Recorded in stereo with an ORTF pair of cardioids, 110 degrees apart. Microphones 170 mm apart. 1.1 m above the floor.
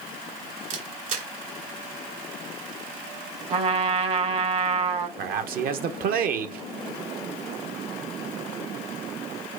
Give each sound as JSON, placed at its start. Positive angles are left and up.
{"t": 0.7, "sound": "a camera shutter", "azimuth_deg": -55, "distance_m": 1.4}
{"t": 3.5, "sound": "a trumpet", "azimuth_deg": -40, "distance_m": 0.8}
{"t": 5.2, "sound": "a man speaking", "azimuth_deg": -65, "distance_m": 0.7}